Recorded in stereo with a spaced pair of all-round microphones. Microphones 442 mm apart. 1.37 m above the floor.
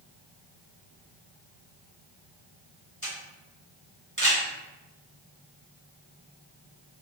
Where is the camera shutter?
25° right (ahead or behind), 1.8 m.